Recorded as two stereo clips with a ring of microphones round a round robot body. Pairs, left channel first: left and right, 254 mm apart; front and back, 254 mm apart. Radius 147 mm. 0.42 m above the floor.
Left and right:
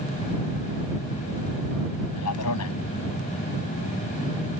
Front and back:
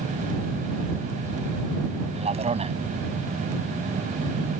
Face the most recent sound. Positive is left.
turn(degrees=115)